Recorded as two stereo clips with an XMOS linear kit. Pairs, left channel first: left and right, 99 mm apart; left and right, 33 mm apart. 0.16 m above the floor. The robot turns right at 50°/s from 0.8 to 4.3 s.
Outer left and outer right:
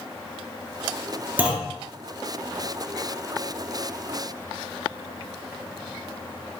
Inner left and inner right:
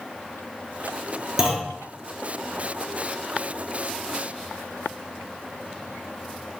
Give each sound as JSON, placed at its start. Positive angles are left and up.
{"t": 1.4, "sound": "a clunk", "side_deg": -15, "distance_m": 1.0}